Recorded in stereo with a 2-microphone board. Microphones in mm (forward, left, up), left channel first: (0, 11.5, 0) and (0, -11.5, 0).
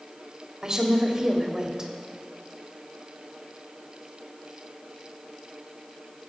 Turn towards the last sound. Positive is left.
turn(degrees=-25)  # may be behind; listen again after turning